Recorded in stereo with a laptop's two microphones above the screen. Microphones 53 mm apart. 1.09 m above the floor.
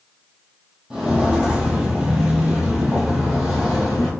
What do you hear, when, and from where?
0.9 s footsteps: 15° right (ahead or behind), 1.4 m; by 4.1 s 5° right (ahead or behind), 1.4 m